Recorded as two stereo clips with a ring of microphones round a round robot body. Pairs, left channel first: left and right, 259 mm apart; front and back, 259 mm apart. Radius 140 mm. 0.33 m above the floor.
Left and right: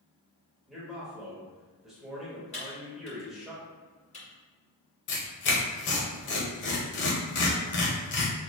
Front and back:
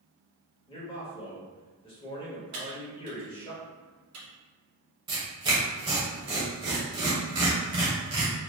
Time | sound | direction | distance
0.7 | a man speaking | 5° right | 1.2 m
2.5 | typing on a keyboard | 155° left | 1.7 m
5.1 | tearing paper | 110° left | 1.1 m